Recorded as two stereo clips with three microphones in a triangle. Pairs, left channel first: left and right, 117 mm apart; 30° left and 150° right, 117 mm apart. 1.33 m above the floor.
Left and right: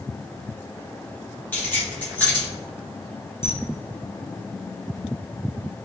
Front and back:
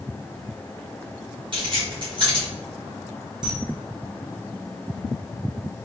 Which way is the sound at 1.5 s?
165° left.